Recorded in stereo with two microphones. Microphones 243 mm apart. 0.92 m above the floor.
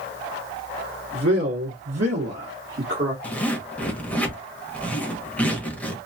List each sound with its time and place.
1.1 s a man speaking: 60° right (ahead or behind), 1.3 m; by 3.1 s 45° right (ahead or behind), 1.3 m
3.2 s a zipper: 5° left (ahead or behind), 1.0 m